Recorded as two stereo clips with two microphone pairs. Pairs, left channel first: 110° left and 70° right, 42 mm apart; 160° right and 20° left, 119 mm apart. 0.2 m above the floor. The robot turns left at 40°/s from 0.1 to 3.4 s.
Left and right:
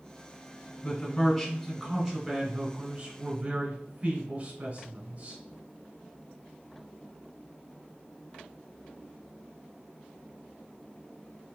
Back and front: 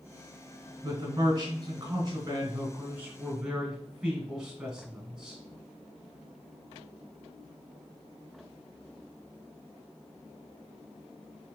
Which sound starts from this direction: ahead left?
A man speaking, at 0.8 s.